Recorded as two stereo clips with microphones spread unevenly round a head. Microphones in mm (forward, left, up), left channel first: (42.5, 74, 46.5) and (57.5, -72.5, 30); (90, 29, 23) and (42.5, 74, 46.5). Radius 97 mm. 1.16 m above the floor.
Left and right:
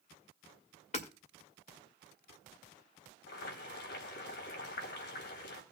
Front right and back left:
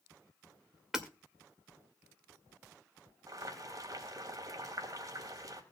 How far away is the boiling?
About 3 m.